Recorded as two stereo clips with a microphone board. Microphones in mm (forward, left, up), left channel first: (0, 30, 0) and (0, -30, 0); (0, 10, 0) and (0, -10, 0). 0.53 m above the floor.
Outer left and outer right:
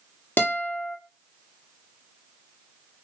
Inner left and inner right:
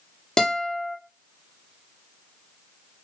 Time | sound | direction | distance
0.4 | a guitar | 30° left (ahead or behind) | 1.0 m